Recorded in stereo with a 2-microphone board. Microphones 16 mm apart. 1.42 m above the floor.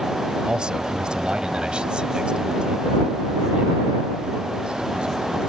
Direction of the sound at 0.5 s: 65° right (ahead or behind).